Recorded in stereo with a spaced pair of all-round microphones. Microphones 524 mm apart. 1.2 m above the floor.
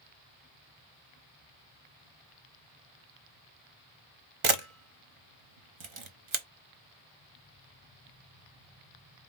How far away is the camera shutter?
About 0.9 m.